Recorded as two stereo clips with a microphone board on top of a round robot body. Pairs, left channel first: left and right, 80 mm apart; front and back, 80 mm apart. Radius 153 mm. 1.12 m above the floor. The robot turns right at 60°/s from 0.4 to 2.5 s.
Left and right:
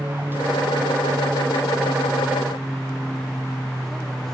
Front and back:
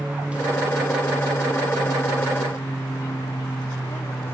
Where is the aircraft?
115° right; by 4.3 s 10° left.